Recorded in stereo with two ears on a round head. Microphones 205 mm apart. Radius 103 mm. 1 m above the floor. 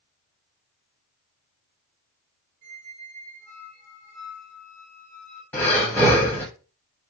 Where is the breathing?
10° left (ahead or behind), 1.0 m.